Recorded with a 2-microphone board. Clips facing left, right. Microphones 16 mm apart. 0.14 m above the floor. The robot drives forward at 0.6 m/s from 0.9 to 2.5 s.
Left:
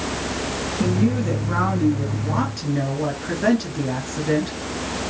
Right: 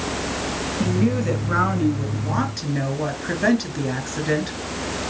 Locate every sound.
0.8 s a woman speaking: 10° right (ahead or behind), 1.7 m